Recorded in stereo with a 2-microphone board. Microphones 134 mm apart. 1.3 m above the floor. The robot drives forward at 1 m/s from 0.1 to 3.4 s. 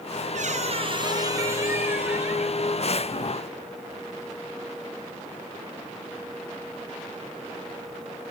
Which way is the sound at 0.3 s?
60° right (ahead or behind).